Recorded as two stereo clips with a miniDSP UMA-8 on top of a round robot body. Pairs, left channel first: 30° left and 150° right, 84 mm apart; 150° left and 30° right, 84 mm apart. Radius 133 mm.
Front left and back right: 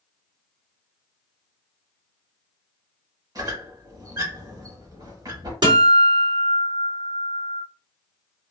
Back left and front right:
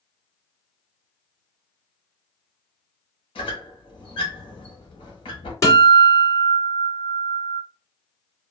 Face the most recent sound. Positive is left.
turn(degrees=-160)